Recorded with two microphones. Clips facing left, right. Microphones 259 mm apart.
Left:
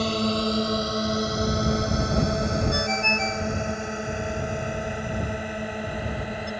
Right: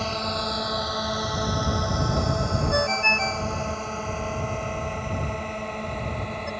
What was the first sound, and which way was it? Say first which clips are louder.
A drone: left 7 dB; 40° left (ahead or behind).